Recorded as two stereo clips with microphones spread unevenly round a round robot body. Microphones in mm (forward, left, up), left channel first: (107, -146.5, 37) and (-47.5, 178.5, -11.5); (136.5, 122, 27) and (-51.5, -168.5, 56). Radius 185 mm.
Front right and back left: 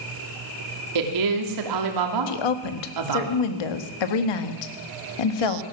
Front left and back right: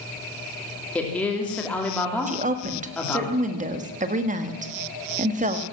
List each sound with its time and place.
0.9 s a woman speaking: 145° left, 2.5 m
2.3 s a woman speaking: 55° right, 1.5 m